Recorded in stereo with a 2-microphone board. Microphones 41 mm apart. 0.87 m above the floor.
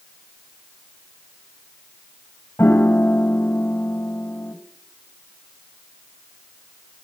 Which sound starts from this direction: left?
A piano, at 2.6 s.